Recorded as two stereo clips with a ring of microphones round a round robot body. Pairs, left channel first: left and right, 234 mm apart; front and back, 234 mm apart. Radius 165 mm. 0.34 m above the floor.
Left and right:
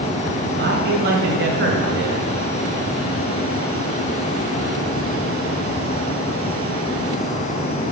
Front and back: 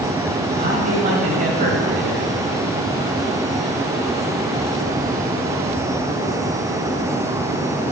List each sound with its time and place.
0.6 s a man speaking: 125° right, 1.8 m